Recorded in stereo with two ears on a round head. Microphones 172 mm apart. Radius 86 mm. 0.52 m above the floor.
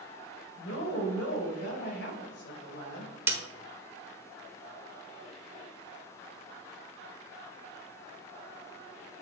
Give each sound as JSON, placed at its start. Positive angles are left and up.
{"t": 0.6, "sound": "a woman speaking", "side_deg": 60, "distance_m": 2.5}
{"t": 3.3, "sound": "a snare drum", "side_deg": -10, "distance_m": 1.0}